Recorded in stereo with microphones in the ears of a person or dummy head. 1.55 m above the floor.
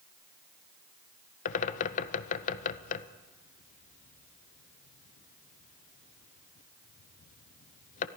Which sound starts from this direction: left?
A bird, at 1.4 s.